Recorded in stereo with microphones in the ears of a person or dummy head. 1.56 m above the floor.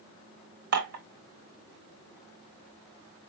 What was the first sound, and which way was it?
Dishes clattering, 55° right (ahead or behind).